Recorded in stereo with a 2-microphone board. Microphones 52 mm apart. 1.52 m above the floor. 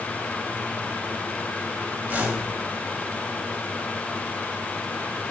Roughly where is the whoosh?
Right.